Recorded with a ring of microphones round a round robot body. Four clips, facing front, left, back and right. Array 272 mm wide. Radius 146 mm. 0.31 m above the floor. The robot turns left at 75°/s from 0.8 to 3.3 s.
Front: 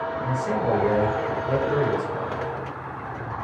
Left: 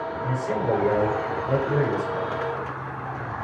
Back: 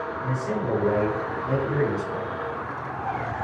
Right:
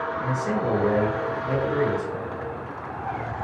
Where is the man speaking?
90° right, 3 m; by 2.4 s 150° left, 3 m.